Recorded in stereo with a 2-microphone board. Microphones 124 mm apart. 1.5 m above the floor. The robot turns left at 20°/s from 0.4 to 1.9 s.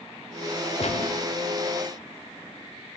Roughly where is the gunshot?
Left.